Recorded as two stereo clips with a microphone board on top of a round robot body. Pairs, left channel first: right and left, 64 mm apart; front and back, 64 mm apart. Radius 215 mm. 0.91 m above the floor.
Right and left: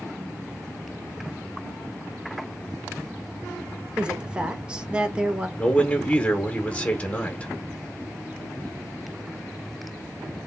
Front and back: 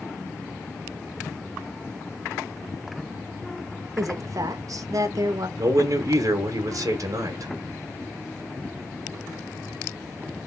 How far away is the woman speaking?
About 1.4 m.